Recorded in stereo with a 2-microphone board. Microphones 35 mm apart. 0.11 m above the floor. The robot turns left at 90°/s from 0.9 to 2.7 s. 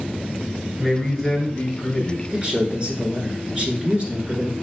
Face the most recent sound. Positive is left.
turn(degrees=-110)